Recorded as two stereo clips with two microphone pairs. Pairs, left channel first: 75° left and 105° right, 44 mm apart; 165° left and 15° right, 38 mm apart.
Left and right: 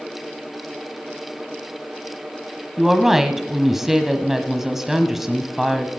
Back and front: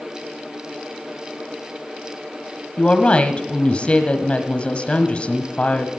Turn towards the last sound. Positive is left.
turn(degrees=180)